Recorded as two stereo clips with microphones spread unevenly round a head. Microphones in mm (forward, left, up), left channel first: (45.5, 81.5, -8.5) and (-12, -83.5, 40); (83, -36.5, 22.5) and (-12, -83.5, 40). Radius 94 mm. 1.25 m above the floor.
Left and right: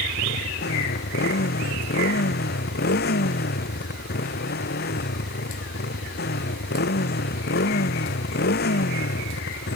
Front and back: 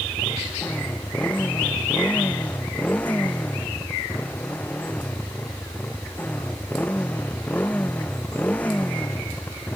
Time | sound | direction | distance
0.0 | a motorcycle | 110° left | ?